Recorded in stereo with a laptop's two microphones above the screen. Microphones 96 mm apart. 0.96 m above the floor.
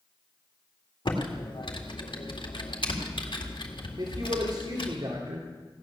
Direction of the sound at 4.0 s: 60° right (ahead or behind).